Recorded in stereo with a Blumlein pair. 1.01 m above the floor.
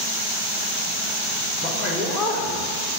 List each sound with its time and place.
1.6 s a man speaking: 15° left, 3 m